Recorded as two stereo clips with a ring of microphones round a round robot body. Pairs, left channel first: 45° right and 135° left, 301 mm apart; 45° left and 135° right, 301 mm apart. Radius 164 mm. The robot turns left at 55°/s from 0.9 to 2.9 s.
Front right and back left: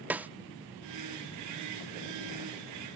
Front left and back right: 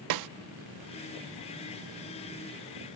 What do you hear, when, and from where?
0.1 s a snare drum: 140° right, 0.6 m